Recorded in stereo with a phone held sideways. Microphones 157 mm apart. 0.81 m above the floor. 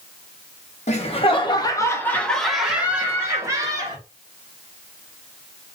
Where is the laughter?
45° left (ahead or behind), 1.1 m; by 4.0 s 25° right (ahead or behind), 1.7 m.